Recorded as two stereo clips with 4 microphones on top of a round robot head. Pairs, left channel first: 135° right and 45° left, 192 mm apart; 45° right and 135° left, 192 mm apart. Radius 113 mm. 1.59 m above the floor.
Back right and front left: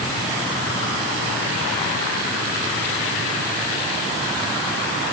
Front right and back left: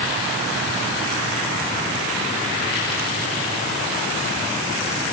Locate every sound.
Only background noise.